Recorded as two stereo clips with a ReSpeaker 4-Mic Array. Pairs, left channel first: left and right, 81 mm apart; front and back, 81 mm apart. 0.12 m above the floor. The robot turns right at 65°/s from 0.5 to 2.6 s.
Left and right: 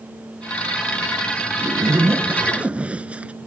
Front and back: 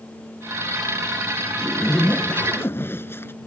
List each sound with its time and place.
1.6 s a zipper: 95° right; by 3.3 s 30° right